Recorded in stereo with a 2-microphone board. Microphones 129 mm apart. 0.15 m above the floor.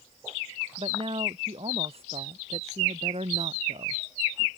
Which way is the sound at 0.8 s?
45° right (ahead or behind).